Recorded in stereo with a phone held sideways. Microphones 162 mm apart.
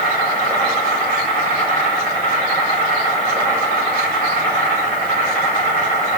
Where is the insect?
45° left (ahead or behind), 1.7 m.